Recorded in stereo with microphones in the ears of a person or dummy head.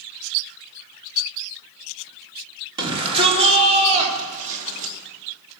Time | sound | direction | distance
2.8 | a shout | 20° right (ahead or behind) | 3 m